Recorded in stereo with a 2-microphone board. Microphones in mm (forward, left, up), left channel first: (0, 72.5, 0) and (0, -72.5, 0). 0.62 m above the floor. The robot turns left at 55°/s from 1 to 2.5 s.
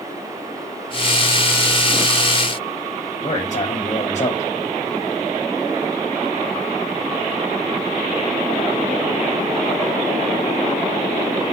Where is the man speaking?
55° left (ahead or behind), 4 m.